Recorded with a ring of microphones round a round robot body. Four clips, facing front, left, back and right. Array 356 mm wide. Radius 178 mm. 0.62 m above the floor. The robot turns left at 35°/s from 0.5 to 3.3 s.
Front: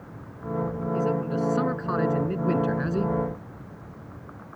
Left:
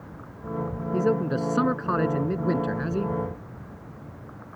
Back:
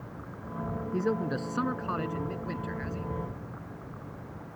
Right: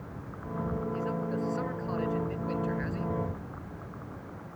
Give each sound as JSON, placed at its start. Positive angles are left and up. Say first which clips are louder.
{"t": 0.9, "sound": "a man speaking", "louder": "left 8 dB, front 3 dB", "azimuth_deg": 110}